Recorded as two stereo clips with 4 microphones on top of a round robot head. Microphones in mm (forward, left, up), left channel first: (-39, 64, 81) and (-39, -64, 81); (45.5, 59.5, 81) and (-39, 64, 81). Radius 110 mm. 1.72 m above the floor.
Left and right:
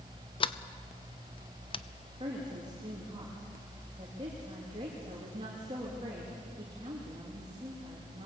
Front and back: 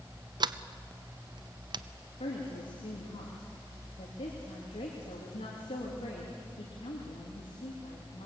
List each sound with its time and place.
0.4 s a sliding door: 140° left, 0.8 m
2.2 s a woman speaking: 25° right, 3 m